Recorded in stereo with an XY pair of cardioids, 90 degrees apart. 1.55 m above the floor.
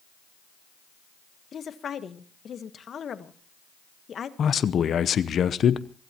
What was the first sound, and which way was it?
A woman speaking, 55° left.